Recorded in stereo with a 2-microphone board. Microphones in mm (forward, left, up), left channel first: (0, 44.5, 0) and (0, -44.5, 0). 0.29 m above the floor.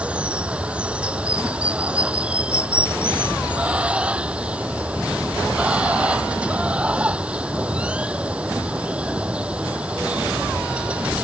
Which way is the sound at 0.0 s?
10° right (ahead or behind).